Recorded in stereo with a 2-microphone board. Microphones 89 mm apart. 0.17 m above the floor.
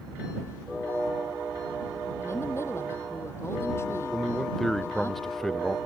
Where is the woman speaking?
30° left (ahead or behind).